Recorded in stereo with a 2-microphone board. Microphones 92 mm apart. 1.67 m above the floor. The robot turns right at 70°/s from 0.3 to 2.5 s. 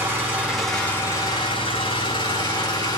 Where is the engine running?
20° right, 4 m; by 3.0 s 130° left, 4 m.